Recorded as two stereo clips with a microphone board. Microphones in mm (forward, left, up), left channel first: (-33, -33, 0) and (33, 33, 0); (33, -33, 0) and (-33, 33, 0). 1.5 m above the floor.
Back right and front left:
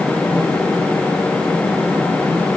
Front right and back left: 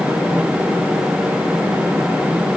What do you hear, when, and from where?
Only background noise.